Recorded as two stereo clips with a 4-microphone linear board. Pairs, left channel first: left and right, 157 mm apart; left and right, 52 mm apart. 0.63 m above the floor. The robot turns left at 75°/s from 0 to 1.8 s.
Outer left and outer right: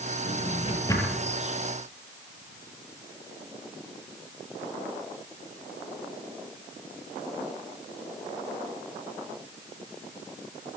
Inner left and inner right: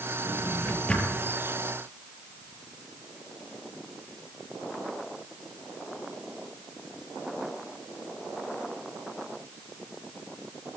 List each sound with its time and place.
0.2 s a drawer: 70° left (ahead or behind), 7.5 m; by 1.3 s 5° right (ahead or behind), 7.5 m